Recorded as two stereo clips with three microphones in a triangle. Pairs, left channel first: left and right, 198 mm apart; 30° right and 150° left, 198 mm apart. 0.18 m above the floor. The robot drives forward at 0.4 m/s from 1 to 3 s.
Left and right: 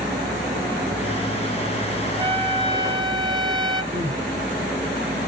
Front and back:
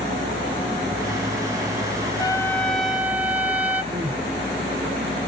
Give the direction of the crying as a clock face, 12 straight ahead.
5 o'clock.